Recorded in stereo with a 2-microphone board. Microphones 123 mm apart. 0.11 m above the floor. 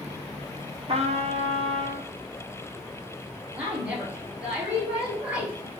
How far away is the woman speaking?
About 1.8 m.